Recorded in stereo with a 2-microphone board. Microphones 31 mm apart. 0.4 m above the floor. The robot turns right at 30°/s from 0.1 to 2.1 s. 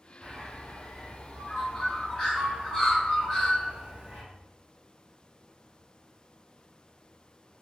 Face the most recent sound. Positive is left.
turn(degrees=10)  # may be behind; listen again after turning